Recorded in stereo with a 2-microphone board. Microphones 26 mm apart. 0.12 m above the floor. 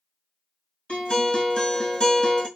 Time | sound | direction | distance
0.9 | a guitar | 50° left (ahead or behind) | 1.5 m